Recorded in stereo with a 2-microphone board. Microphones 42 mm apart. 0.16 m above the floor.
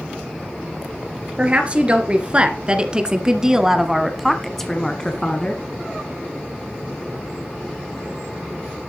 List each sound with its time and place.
1.4 s a woman speaking: 25° right (ahead or behind), 2.5 m; by 5.6 s 20° left (ahead or behind), 1.6 m